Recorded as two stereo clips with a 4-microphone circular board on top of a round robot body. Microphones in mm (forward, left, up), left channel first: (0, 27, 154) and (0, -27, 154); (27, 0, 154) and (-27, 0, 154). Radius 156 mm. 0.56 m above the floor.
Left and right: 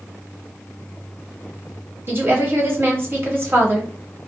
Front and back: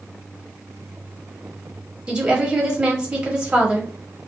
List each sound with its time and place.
2.1 s a woman speaking: 115° right, 1.1 m